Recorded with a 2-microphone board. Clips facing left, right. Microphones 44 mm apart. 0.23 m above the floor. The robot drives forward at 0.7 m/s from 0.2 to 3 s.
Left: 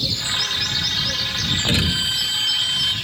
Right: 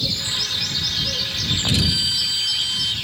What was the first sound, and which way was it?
A violin, 35° left (ahead or behind).